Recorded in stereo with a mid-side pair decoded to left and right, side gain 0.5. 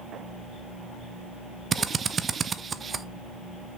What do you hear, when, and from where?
1.7 s a drill: 35° right, 0.7 m